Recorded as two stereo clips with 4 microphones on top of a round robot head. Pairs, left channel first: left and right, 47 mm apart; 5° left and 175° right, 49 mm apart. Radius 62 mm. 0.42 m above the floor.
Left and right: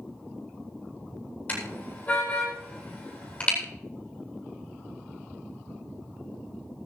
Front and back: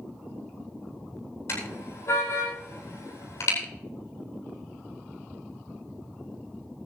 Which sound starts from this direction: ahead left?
A car horn, at 1.5 s.